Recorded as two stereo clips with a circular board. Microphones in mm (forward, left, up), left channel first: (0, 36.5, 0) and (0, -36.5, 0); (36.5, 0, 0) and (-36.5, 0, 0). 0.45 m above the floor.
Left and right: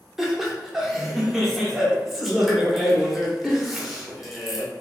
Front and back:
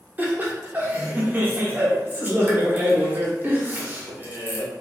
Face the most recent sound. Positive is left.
turn(degrees=-175)